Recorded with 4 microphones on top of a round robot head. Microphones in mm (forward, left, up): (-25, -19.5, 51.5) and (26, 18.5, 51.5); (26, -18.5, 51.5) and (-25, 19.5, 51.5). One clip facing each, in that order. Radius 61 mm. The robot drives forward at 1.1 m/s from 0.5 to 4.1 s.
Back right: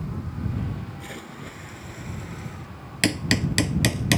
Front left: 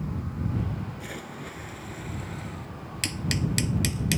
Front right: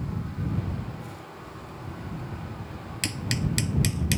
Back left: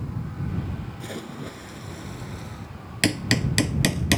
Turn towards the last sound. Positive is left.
turn(degrees=180)